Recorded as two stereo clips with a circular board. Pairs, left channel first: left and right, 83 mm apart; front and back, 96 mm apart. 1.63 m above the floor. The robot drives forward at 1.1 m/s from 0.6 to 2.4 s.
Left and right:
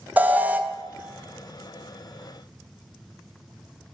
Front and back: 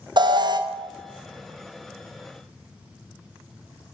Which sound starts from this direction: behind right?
An alarm, at 0.2 s.